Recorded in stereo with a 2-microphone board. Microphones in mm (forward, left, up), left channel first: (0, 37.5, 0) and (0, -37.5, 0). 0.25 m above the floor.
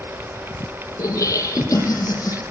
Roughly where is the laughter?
Left.